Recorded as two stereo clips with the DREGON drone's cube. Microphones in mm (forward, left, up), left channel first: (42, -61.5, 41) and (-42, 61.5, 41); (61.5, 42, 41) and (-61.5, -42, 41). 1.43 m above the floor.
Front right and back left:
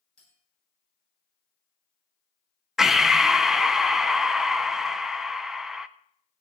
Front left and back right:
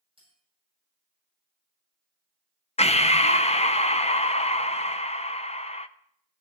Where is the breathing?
40° left, 0.5 m.